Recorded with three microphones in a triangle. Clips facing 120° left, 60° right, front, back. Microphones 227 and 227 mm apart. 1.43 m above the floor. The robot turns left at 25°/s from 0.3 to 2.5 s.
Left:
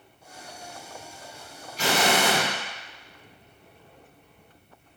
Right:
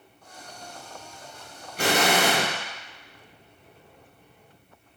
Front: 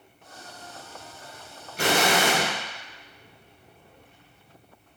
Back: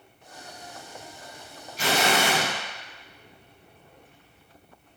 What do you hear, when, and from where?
1.8 s an explosion: 30° right, 0.7 m; by 2.5 s 45° right, 0.7 m